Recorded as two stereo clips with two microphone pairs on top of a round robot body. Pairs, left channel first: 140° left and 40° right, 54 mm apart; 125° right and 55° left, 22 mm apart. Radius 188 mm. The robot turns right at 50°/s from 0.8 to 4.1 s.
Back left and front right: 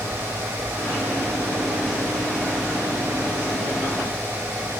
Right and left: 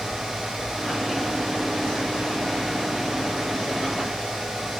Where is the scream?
I don't hear a scream.